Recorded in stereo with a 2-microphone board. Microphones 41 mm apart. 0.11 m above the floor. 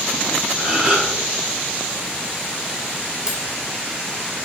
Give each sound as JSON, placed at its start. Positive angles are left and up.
{"t": 0.6, "sound": "a gasp", "side_deg": -25, "distance_m": 2.5}
{"t": 3.3, "sound": "cutlery clinking", "side_deg": -15, "distance_m": 1.5}